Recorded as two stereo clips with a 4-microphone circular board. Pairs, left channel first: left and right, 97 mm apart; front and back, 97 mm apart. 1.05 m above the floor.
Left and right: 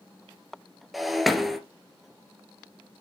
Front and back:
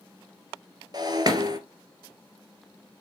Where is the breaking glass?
Straight behind, 1.3 m.